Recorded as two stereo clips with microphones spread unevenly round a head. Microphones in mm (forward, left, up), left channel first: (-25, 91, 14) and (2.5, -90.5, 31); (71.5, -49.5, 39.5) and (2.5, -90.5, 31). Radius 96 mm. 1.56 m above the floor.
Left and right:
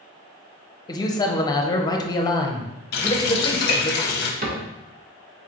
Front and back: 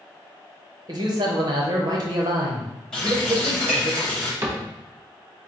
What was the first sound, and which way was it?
A man speaking, 165° left.